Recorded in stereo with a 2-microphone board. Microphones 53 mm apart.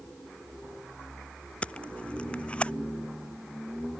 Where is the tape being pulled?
20° left (ahead or behind).